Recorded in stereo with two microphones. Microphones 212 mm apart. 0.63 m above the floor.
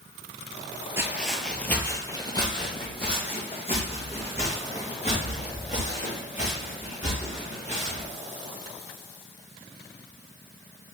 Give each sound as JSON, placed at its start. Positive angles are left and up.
{"t": 1.0, "sound": "footsteps", "side_deg": -15, "distance_m": 0.6}